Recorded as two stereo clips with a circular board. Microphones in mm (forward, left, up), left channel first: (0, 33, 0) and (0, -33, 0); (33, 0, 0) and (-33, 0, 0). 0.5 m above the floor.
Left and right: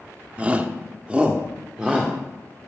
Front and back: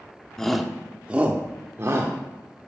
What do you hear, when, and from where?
0.4 s a shout: 65° right, 1.0 m; by 2.1 s 165° right, 1.4 m